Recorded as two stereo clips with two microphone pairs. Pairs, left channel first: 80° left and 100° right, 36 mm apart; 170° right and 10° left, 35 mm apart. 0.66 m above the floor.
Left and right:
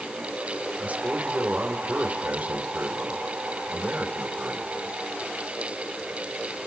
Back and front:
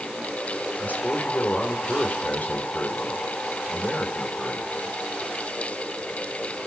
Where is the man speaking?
140° right, 2.5 m.